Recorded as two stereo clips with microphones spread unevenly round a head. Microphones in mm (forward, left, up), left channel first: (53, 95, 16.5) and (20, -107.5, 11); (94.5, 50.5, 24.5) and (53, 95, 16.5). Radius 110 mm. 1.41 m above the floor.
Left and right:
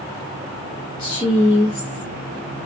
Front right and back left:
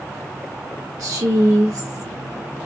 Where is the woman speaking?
150° left, 0.9 m.